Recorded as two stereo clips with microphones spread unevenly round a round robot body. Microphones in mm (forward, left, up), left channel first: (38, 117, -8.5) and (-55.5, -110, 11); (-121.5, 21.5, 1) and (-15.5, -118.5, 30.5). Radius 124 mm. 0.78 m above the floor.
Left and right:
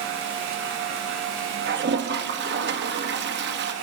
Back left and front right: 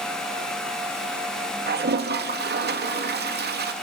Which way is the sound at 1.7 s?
70° right.